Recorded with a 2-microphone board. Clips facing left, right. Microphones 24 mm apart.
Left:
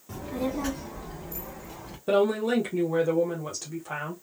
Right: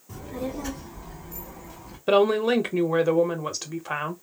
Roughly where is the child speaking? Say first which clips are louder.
Left 2 dB; left.